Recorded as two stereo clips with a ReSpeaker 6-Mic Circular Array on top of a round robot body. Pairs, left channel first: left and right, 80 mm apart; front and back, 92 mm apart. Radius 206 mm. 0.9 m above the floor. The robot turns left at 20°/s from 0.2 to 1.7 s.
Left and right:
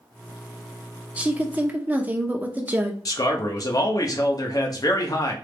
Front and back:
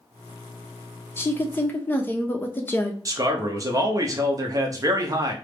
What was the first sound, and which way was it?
A woman speaking, 35° right.